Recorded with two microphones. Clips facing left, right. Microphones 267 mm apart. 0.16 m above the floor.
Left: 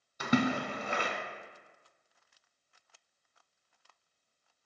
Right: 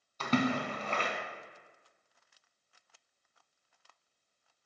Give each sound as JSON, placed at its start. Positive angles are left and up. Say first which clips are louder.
{"t": 0.2, "sound": "a splash", "louder": "left 1 dB", "side_deg": 15, "distance_m": 0.6}